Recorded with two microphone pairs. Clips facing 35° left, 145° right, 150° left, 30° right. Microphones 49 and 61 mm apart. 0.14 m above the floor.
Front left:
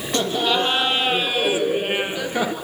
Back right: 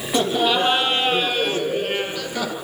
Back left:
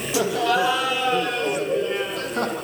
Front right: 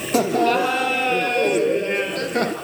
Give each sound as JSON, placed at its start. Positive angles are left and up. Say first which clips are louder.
{"t": 0.1, "sound": "laughter", "louder": "back right 2 dB, front right 3 dB", "azimuth_deg": -65, "distance_m": 3.5}